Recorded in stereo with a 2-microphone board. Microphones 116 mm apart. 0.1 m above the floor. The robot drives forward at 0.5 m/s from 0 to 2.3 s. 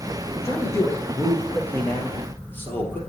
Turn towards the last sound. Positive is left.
turn(degrees=15)  # may be behind; listen again after turning